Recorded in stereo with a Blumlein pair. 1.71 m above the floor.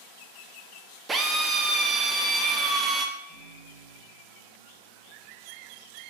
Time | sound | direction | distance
1.1 | a drill | 20° right | 0.6 m
3.2 | a microwave | 25° right | 2 m